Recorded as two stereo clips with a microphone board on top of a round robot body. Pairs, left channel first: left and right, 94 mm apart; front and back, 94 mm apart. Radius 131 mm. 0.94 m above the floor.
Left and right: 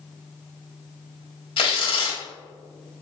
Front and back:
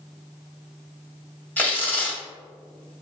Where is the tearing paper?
70° left, 1.5 m.